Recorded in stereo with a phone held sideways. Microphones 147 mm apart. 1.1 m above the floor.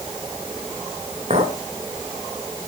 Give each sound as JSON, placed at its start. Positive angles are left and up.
{"t": 1.3, "sound": "a clink", "side_deg": -50, "distance_m": 3.0}